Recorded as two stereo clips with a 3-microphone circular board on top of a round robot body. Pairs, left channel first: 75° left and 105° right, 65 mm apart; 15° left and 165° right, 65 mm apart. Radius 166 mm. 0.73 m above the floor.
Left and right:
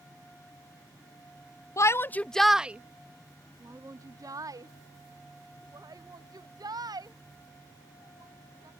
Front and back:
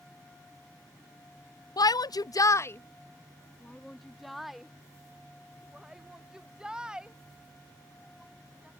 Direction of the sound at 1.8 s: 35° left.